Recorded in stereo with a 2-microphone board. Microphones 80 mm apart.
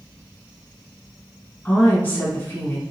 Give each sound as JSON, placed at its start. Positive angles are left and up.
{"t": 1.6, "sound": "a woman speaking", "side_deg": 25, "distance_m": 1.1}